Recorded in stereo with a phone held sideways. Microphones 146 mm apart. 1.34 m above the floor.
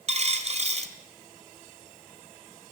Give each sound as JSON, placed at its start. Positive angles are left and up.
{"t": 0.1, "sound": "a dropped coin", "side_deg": -50, "distance_m": 1.8}